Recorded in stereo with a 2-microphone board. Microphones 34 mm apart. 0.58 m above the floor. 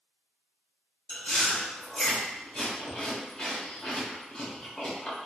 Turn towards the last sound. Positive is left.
turn(degrees=25)  # may be behind; listen again after turning